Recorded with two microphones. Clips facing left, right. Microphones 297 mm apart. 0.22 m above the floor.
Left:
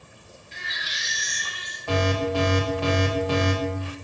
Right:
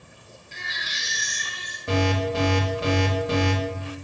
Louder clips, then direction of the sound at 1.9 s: Even; 25° right (ahead or behind).